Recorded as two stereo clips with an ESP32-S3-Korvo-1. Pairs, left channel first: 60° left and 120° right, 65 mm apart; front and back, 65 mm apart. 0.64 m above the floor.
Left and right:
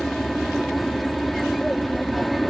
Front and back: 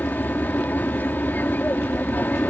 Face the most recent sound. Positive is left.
turn(degrees=-30)